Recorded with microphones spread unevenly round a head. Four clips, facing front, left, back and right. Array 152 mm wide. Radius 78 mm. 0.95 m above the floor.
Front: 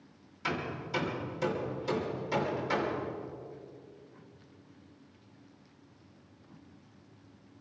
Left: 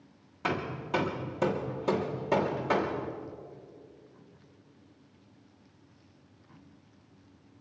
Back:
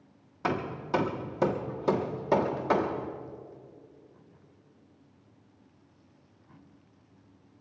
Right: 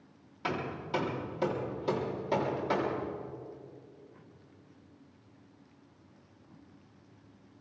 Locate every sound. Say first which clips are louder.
0.4 s hammering: left 2 dB, back 4 dB; 170° left, 1.3 m